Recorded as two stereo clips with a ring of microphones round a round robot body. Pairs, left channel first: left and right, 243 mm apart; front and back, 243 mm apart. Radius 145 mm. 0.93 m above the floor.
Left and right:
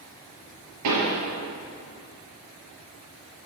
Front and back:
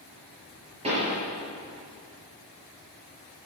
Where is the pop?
110° right, 5.5 m.